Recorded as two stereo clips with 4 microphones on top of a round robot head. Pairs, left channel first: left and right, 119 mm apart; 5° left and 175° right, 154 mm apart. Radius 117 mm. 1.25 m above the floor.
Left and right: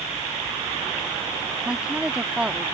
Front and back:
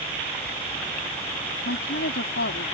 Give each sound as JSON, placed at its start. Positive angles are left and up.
{"t": 1.6, "sound": "a woman speaking", "azimuth_deg": -10}